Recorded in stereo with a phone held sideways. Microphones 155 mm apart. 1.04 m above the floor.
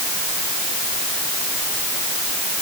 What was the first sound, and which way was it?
Only background noise.